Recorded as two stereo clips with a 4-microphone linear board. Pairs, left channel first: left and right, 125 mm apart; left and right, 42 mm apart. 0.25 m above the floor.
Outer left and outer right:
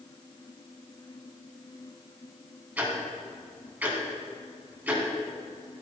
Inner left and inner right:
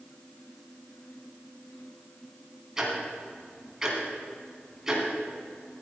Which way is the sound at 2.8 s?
15° right (ahead or behind).